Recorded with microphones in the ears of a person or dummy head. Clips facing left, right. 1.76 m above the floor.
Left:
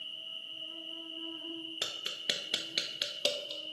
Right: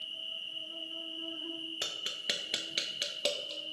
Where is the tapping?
Centre (ahead or behind), 0.6 m.